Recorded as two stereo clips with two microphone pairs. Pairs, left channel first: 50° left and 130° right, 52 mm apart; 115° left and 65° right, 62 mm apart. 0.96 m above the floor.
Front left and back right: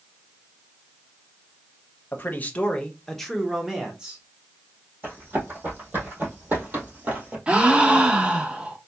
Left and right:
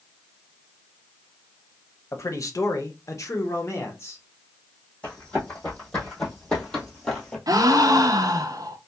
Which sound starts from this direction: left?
A man speaking, at 2.1 s.